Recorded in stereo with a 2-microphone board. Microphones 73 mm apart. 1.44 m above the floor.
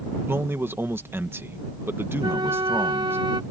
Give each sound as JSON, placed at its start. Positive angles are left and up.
{"t": 0.3, "sound": "a man speaking", "side_deg": -30}
{"t": 2.2, "sound": "a flute", "side_deg": -80}